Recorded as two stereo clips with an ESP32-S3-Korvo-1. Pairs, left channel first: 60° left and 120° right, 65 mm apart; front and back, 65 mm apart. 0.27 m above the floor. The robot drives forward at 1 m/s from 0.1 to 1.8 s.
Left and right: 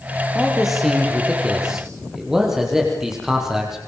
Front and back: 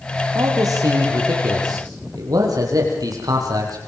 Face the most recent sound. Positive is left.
turn(degrees=160)